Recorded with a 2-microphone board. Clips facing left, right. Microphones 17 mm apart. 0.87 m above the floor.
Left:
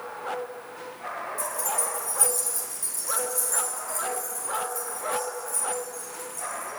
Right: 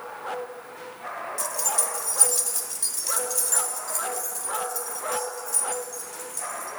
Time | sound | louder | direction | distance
1.4 | keys jangling | right 2 dB | 50° right (ahead or behind) | 0.8 m